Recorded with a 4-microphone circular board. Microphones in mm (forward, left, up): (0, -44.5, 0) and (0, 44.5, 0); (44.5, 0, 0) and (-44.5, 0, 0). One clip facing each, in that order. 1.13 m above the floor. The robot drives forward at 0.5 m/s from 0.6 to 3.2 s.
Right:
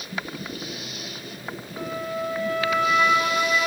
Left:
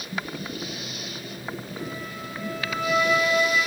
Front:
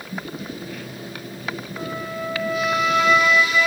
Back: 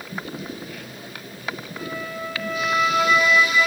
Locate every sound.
1.8 s a flute: 60° right, 1.0 m; by 3.7 s 105° right, 0.9 m